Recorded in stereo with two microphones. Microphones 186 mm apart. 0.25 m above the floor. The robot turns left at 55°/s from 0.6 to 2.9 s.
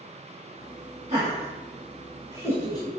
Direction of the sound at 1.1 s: 40° right (ahead or behind).